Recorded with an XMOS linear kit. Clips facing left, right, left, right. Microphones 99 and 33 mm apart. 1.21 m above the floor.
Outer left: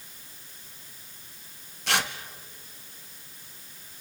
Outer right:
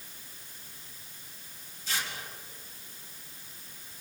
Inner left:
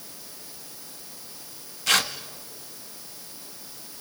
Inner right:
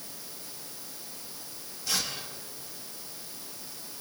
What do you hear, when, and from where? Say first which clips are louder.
1.9 s tearing paper: outer left 8 dB, inner left 10 dB; 70° left (ahead or behind), 1.3 m